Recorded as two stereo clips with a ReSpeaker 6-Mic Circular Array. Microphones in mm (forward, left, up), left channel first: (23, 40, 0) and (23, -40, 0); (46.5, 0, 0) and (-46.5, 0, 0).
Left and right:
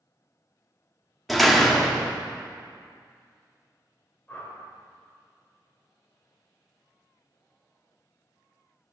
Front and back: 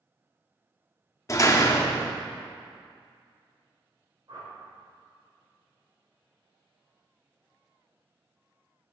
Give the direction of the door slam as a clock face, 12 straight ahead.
12 o'clock.